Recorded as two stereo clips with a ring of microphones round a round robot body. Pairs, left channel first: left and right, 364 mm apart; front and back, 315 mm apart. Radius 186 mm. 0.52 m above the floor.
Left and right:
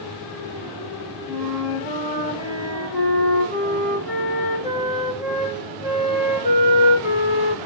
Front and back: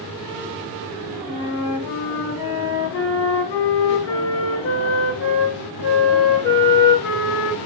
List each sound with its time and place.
1.3 s a flute: 15° left, 0.9 m